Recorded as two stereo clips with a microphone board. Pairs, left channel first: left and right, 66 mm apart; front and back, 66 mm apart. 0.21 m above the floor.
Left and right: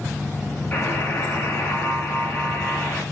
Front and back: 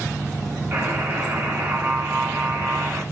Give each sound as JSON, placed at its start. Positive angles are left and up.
{"t": 0.7, "sound": "a buzzer", "azimuth_deg": 140, "distance_m": 2.0}